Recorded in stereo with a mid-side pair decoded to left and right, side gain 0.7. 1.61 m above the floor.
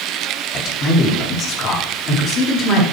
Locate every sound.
0.5 s a man speaking: 40° left, 3.5 m